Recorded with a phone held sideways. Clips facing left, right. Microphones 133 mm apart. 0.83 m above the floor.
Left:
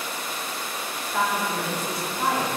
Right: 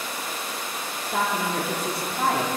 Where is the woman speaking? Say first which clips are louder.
Even; 70° right (ahead or behind), 1.5 m.